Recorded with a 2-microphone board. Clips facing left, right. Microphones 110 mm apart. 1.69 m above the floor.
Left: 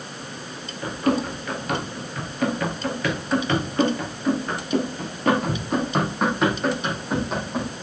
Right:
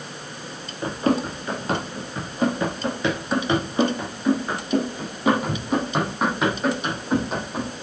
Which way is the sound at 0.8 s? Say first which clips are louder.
Right 1 dB; 30° right (ahead or behind).